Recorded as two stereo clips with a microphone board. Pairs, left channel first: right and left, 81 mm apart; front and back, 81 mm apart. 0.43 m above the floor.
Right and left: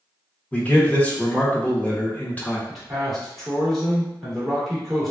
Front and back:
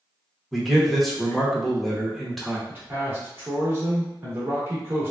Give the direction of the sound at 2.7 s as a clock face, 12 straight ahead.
6 o'clock.